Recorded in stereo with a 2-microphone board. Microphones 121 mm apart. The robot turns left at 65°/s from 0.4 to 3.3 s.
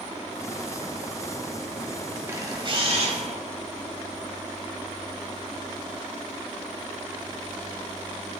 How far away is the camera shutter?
About 1.1 m.